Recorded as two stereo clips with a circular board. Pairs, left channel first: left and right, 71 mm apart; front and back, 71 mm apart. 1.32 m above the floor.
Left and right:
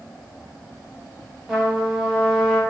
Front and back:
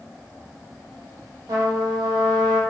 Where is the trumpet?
170° right, 0.9 m.